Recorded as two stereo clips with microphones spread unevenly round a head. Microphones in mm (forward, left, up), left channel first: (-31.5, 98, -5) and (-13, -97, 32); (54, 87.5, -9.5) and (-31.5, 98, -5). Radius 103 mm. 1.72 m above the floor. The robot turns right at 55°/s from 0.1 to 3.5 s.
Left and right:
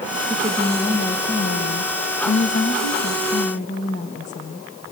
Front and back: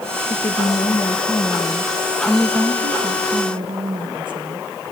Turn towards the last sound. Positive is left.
turn(degrees=155)